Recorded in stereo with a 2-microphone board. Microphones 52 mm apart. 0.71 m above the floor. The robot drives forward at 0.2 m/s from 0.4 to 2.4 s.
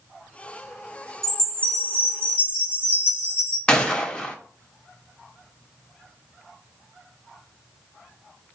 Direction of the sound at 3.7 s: 15° left (ahead or behind).